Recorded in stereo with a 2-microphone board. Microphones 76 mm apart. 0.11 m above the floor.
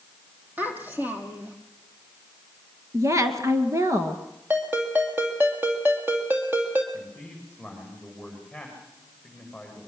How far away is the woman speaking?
About 1.8 m.